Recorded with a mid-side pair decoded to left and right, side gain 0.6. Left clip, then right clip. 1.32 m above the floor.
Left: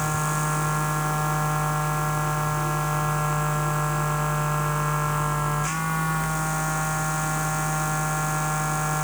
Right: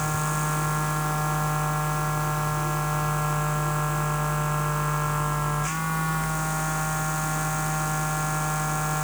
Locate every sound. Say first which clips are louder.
0.0 s a machine running: left 1 dB; 10° left